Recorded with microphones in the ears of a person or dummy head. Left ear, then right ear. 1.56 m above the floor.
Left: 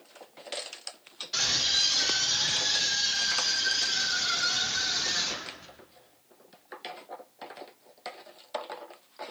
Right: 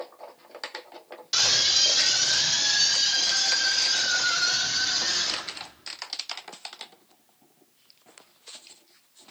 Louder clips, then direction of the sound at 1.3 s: Right 4 dB; 50° right (ahead or behind).